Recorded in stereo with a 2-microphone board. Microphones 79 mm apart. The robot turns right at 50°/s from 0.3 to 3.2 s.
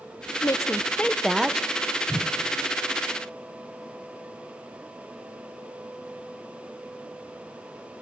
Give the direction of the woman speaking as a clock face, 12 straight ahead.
7 o'clock.